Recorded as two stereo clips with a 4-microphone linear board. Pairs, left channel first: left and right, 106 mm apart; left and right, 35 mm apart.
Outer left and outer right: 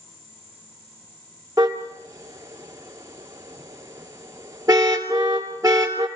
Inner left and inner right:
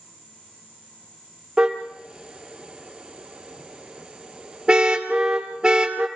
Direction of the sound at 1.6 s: 35° right (ahead or behind).